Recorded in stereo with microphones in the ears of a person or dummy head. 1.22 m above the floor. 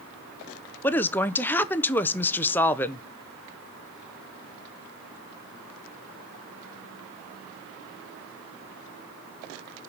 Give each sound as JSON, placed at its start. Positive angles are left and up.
{"t": 0.8, "sound": "a woman speaking", "side_deg": 10, "distance_m": 0.5}